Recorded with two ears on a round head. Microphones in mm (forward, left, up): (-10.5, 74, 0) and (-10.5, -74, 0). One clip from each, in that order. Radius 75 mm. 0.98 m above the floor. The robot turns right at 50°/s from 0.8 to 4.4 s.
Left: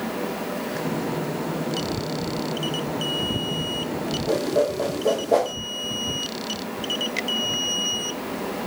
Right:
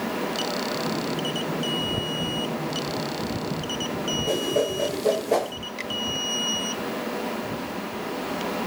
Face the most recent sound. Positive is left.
turn(degrees=-50)  # may be behind; listen again after turning